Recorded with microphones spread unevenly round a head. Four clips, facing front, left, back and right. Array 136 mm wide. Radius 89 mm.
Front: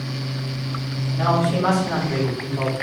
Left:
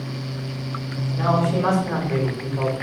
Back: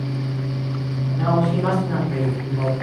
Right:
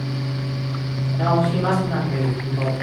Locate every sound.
1.2 s a man speaking: 85° left, 5 m; by 2.7 s 80° left, 4.5 m